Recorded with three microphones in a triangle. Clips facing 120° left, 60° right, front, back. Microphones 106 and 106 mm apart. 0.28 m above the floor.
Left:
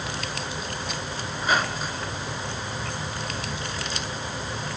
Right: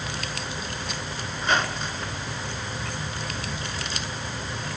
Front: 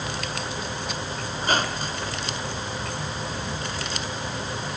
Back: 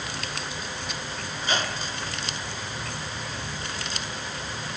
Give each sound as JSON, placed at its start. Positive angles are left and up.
{"t": 1.3, "sound": "a squeak", "azimuth_deg": 35, "distance_m": 2.5}